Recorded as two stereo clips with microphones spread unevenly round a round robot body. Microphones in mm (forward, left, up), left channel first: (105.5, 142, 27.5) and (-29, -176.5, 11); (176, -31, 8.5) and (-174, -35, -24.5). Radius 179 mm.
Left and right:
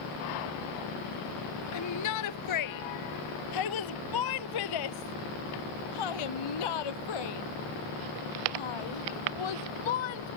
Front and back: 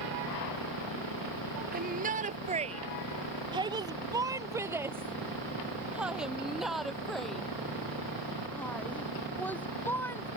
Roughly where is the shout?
Behind left.